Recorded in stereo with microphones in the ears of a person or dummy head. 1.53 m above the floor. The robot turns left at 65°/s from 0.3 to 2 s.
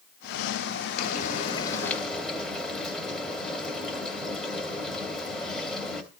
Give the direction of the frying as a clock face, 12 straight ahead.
10 o'clock.